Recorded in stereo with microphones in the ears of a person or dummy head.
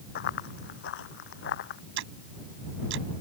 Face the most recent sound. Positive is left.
turn(degrees=-60)  # may be behind; listen again after turning